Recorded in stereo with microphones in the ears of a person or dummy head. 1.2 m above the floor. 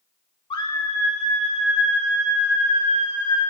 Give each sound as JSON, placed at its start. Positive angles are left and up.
{"t": 0.5, "sound": "a scream", "side_deg": 30, "distance_m": 1.6}